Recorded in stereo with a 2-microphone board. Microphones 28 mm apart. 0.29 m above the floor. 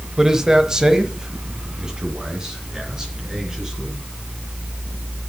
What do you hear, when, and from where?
0.2 s a man speaking: 20° right (ahead or behind), 1.0 m; by 4.0 s 25° right (ahead or behind), 3.5 m